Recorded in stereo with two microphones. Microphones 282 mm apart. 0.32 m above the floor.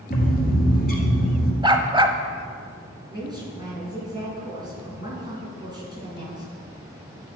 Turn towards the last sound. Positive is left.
turn(degrees=-15)  # may be behind; listen again after turning